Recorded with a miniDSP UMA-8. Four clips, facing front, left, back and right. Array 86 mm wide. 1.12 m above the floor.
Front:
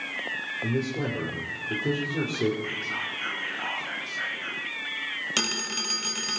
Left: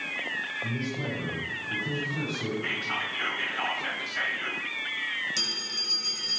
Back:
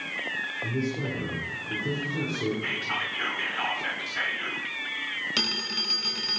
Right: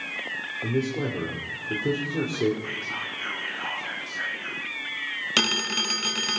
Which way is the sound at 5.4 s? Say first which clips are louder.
Right 11 dB, front 1 dB; 80° right.